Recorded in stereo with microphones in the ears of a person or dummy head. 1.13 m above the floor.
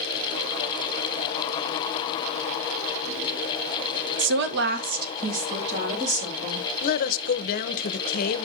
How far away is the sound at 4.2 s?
About 0.8 m.